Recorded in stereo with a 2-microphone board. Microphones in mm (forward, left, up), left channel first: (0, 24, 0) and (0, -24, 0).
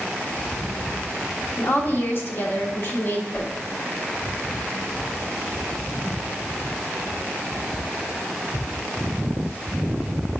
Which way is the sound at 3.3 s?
35° left (ahead or behind).